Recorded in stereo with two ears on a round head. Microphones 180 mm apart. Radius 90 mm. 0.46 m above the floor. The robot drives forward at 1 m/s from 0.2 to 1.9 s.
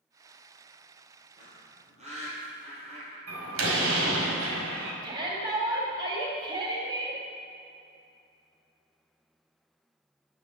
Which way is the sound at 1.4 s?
40° right (ahead or behind).